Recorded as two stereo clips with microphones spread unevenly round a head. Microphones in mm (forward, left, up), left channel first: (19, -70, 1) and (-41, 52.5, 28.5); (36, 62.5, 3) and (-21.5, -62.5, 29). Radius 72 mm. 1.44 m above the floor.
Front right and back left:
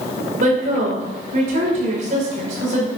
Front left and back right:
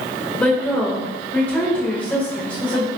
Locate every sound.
0.4 s a woman speaking: 150° left, 5.5 m